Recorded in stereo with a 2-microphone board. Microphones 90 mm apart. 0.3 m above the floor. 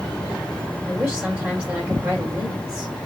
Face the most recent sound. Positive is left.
turn(degrees=-15)  # may be behind; listen again after turning